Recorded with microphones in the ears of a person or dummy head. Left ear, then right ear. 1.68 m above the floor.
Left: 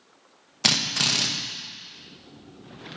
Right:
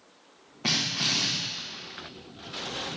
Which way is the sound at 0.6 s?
60° left (ahead or behind).